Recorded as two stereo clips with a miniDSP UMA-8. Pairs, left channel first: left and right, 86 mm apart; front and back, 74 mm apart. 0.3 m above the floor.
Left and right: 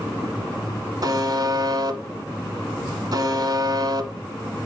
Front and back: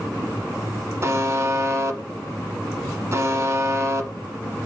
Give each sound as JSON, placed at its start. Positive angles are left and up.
{"t": 1.0, "sound": "a buzzer", "azimuth_deg": -130, "distance_m": 1.0}